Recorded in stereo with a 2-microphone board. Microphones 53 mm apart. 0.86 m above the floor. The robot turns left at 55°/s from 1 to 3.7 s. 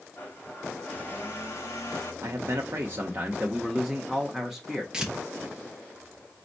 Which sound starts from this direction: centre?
Tearing paper, at 4.9 s.